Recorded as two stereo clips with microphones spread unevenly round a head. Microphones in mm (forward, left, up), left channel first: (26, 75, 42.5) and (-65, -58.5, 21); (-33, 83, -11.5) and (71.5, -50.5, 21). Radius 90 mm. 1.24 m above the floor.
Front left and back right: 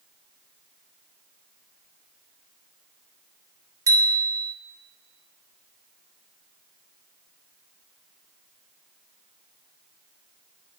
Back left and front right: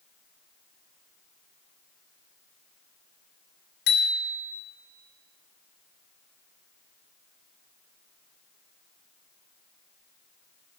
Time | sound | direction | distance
3.9 | a bicycle bell | 165° left | 3 m